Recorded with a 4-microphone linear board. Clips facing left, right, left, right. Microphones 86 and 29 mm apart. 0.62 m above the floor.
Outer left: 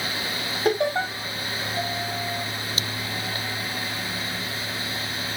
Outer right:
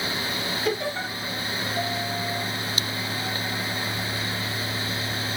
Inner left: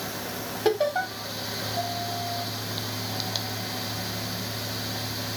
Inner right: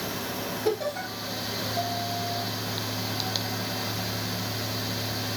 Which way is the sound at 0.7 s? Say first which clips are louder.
Outer left 7 dB, inner left 5 dB; 45° left (ahead or behind).